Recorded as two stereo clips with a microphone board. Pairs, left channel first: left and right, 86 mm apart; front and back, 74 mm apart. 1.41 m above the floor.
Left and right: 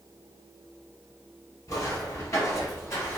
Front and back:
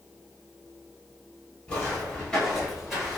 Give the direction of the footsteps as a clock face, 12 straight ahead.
10 o'clock.